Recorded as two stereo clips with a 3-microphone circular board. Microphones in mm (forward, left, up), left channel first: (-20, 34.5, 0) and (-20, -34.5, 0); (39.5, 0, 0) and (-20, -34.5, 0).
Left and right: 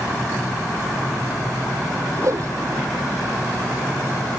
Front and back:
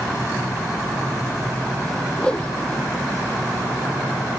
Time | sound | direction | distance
2.2 | a whoosh | 50° right | ?